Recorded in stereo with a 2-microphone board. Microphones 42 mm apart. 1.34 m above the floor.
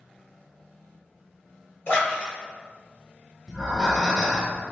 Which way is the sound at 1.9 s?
50° left (ahead or behind).